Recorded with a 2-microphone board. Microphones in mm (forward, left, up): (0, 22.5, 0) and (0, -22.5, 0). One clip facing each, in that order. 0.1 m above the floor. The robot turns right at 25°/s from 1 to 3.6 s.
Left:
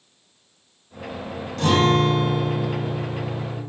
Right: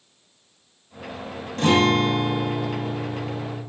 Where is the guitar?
50° right, 0.7 m; by 3.6 s straight ahead, 0.7 m.